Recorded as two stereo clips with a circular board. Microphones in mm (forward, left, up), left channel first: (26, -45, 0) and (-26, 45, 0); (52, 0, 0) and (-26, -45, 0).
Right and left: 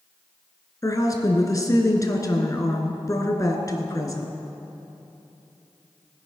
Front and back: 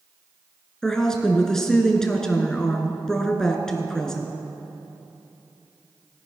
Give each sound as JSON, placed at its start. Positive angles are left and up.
{"t": 0.8, "sound": "a woman speaking", "azimuth_deg": -50, "distance_m": 1.4}